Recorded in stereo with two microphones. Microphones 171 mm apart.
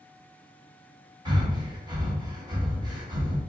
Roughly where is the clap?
I don't hear a clap.